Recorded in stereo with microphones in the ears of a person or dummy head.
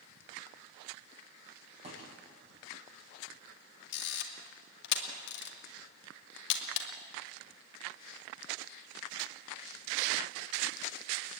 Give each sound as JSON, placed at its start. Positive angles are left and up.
{"t": 1.8, "sound": "a thud", "side_deg": -35, "distance_m": 6.0}
{"t": 3.9, "sound": "a camera shutter", "side_deg": 65, "distance_m": 2.5}